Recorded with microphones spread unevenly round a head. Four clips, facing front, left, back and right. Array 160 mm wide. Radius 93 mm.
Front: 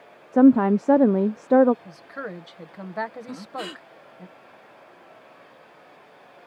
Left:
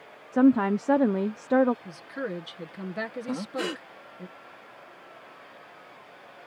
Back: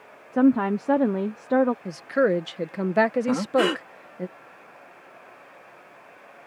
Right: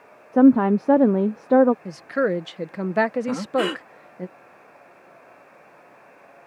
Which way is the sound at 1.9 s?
150° right.